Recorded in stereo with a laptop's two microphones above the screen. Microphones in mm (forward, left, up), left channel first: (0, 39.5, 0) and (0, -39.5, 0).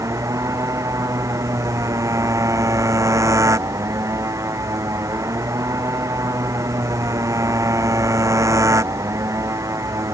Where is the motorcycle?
40° right (ahead or behind).